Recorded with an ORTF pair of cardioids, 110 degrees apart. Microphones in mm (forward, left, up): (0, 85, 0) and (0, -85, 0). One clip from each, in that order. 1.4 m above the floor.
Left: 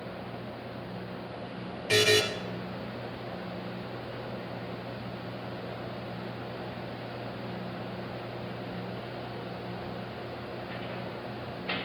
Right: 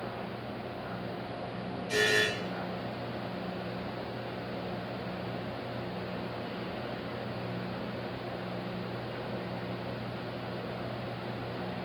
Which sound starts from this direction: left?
A buzzer, at 1.9 s.